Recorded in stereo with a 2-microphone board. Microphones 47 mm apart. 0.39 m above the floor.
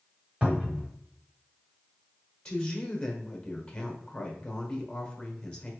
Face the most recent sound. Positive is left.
turn(degrees=20)  # may be behind; listen again after turning